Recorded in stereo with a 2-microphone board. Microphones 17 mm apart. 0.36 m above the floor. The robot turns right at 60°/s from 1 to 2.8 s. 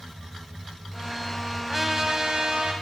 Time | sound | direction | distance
1.7 | a trumpet | 170° right | 0.9 m